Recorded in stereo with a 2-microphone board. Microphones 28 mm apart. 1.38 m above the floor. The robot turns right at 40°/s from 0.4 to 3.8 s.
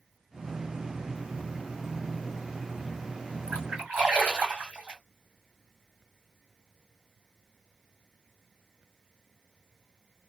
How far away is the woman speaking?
I don't hear a woman speaking.